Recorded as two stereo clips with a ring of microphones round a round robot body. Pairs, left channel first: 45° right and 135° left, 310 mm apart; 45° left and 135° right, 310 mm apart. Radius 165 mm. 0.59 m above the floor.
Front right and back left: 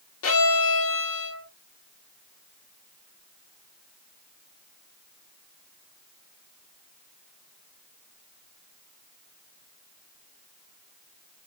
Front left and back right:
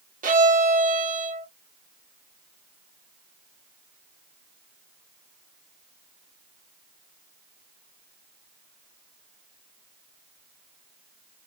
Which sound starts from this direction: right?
A violin, at 0.2 s.